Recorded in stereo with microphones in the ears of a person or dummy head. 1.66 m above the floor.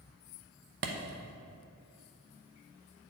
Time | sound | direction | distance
0.8 | a clap | 60° right (ahead or behind) | 0.8 m